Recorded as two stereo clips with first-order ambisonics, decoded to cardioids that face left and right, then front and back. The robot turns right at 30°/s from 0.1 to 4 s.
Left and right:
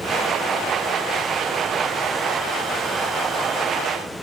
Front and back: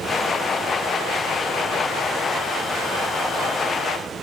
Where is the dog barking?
I don't hear a dog barking.